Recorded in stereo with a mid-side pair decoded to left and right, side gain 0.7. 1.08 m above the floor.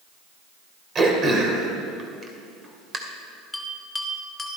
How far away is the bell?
About 2.5 m.